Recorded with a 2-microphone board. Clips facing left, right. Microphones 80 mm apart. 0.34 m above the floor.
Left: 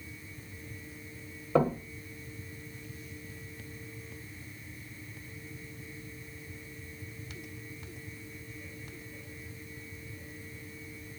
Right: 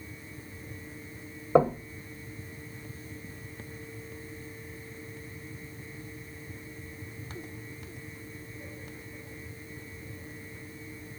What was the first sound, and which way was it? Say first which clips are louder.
Knocking: right 4 dB; 25° right (ahead or behind).